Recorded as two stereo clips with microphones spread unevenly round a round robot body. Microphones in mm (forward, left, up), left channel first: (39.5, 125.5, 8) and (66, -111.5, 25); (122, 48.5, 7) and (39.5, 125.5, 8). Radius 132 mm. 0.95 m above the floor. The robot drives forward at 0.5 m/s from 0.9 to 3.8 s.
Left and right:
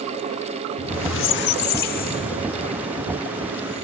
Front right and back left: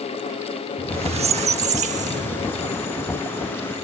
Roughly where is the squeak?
Behind left.